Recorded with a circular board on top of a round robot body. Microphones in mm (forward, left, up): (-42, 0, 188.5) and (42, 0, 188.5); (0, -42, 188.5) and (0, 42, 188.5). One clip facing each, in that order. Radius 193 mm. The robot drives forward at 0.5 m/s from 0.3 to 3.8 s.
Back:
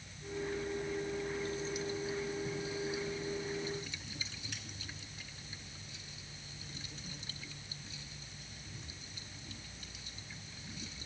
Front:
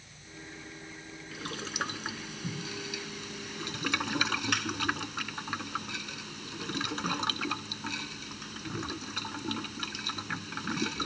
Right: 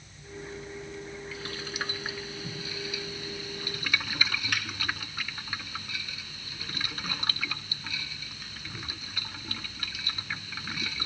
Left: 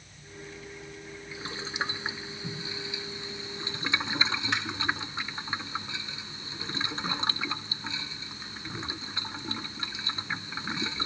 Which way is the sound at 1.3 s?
20° left.